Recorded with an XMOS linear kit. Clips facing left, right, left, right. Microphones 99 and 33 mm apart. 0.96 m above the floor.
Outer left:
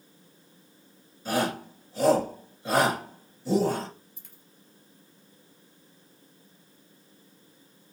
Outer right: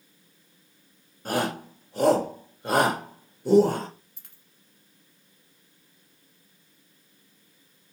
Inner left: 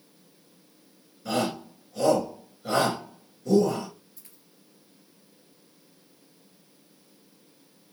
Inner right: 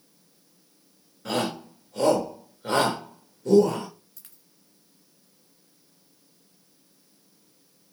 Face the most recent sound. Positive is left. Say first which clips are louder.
# outer left 5 dB, inner left 2 dB
turn(degrees=-75)  # may be behind; listen again after turning